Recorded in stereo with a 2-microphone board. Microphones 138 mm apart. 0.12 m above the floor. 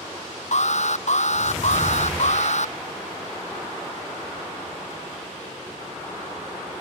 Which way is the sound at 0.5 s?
60° left (ahead or behind).